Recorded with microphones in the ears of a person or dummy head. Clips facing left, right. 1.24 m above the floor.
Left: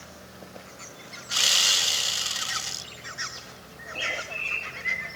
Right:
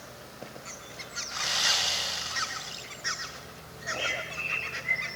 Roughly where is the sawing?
Left.